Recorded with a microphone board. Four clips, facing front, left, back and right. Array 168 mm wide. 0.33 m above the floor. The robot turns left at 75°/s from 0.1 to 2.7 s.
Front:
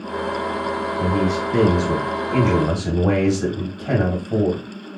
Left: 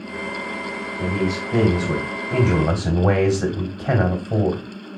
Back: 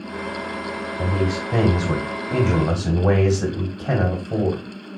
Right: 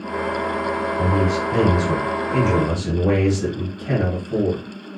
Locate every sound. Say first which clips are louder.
1.0 s a man speaking: right 1 dB, front 2 dB; 120° right, 1.4 m; by 4.6 s 110° left, 1.4 m